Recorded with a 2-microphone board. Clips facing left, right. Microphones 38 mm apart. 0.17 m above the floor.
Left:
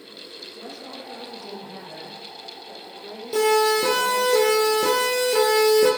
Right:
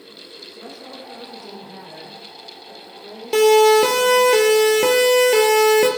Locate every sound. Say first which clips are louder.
0.6 s a woman speaking: right 1 dB; 15° right (ahead or behind), 9 m; by 4.3 s 5° left (ahead or behind), 6 m
3.3 s a siren: right 7 dB; 70° right (ahead or behind), 4.5 m; by 5.9 s 65° right (ahead or behind), 4 m